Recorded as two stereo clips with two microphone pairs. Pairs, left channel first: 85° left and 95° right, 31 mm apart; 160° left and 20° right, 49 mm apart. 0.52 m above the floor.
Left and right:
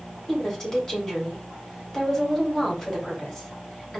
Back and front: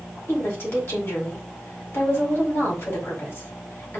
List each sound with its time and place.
0.3 s a woman speaking: 145° left, 1.7 m